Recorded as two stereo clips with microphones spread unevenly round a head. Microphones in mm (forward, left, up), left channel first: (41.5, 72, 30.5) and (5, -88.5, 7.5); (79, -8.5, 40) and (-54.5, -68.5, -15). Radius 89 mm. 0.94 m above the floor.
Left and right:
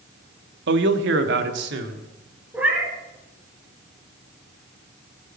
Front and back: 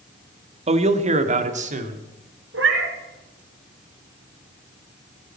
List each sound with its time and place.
0.7 s a man speaking: 115° right, 1.3 m; by 2.1 s 125° right, 2 m
2.5 s a cat meowing: 175° left, 2 m